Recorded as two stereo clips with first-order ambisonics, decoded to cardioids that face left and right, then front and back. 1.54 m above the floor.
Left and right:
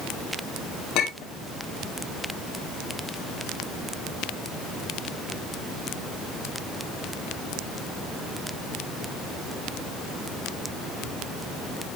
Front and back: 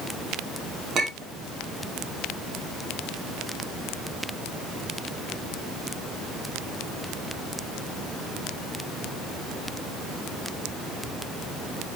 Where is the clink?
120° left, 1.9 m.